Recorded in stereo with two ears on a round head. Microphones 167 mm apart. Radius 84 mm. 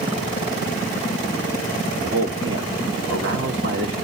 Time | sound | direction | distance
2.0 | a man speaking | 65° right (ahead or behind) | 2.5 m